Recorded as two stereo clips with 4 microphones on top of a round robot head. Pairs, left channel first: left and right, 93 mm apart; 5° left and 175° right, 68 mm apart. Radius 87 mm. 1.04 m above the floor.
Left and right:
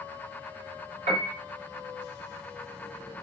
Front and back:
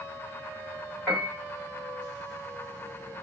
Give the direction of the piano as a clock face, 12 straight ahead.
3 o'clock.